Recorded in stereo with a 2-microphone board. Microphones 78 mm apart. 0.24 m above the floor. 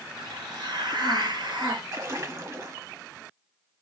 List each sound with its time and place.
0.2 s a hiss: 75° right (ahead or behind), 1.7 m
1.9 s a splash: 40° right (ahead or behind), 1.0 m